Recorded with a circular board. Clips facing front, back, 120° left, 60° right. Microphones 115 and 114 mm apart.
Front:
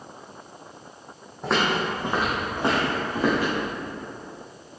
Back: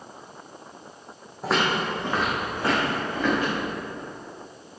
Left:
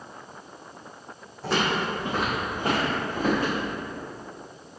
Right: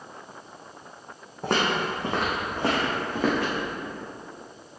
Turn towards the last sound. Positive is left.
turn(degrees=-50)